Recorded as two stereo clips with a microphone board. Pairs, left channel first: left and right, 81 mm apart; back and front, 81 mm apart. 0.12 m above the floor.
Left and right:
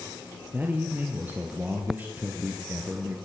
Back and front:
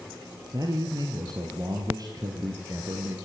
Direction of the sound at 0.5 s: 25° right.